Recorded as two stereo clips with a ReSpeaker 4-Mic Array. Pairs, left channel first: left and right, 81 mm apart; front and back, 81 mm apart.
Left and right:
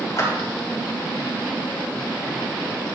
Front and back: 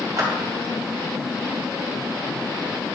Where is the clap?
135° left, 2.5 m.